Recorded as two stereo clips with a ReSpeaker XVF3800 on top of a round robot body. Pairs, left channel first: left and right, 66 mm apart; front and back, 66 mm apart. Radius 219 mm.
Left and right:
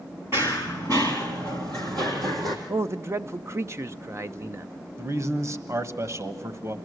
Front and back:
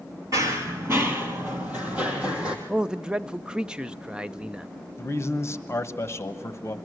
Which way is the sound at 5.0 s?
45° right.